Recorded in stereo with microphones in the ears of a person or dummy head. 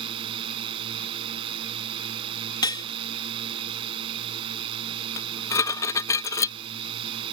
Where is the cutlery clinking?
25° left (ahead or behind).